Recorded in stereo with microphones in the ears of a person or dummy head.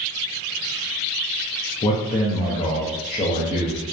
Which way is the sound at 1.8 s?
30° left (ahead or behind).